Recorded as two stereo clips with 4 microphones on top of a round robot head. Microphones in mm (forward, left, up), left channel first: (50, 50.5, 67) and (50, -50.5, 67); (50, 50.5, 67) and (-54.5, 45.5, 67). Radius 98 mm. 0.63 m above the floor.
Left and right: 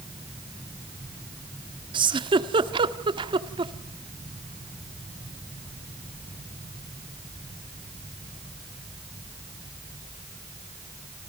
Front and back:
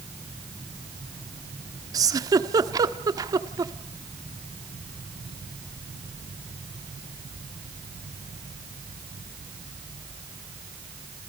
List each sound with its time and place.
1.9 s a giggle: 125° right, 1.4 m